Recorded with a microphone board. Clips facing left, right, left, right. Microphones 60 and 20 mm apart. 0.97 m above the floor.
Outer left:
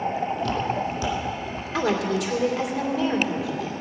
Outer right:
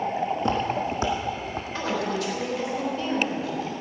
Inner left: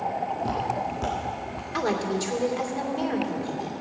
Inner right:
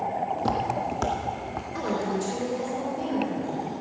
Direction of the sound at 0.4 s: 20° right (ahead or behind).